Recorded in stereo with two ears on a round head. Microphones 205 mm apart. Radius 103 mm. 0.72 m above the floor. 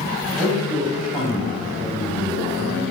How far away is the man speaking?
About 4 m.